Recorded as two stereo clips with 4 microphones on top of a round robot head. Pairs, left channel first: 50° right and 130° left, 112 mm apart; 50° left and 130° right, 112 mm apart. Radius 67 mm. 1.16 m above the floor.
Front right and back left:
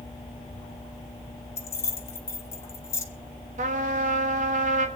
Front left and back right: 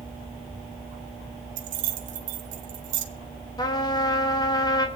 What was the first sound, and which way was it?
Keys jangling, 120° right.